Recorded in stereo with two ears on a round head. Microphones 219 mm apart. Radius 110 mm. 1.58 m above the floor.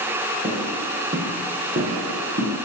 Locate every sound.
0.4 s footsteps: 25° right (ahead or behind), 2.5 m; by 2.5 s 35° right (ahead or behind), 4 m